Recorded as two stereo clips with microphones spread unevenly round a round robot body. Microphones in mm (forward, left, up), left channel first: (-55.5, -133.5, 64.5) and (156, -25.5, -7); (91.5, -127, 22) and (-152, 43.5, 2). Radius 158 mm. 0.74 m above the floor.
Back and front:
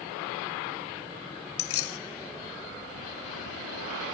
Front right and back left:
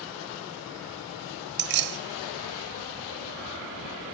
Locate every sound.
1.6 s keys jangling: 175° left, 0.6 m